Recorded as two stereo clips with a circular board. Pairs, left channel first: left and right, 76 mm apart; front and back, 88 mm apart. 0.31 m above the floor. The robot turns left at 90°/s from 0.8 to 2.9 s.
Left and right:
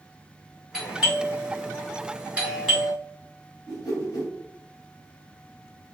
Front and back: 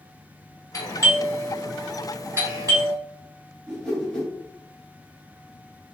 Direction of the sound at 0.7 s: 10° right.